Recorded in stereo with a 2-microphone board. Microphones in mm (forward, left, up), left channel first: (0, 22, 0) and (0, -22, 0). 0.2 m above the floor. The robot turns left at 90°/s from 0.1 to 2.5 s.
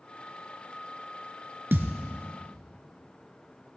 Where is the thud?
55° right (ahead or behind), 1.2 m; by 2.0 s 30° right (ahead or behind), 1.2 m.